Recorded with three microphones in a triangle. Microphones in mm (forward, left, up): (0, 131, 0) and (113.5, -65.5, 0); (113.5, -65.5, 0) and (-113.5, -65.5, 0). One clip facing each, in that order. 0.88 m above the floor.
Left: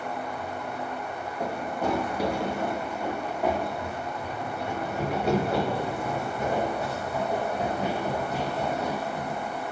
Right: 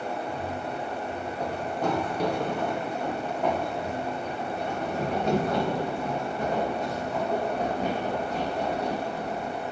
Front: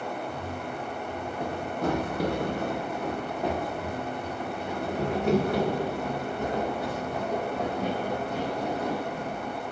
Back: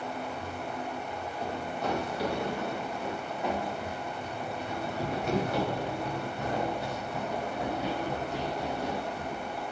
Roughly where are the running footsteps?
Ahead left.